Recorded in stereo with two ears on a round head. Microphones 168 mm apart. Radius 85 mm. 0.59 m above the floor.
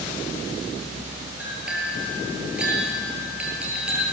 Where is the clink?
5° right (ahead or behind), 7.5 m.